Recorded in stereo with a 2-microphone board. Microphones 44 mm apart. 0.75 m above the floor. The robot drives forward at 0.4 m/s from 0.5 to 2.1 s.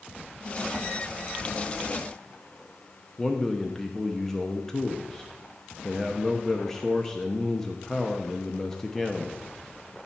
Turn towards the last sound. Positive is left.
turn(degrees=10)  # may be behind; listen again after turning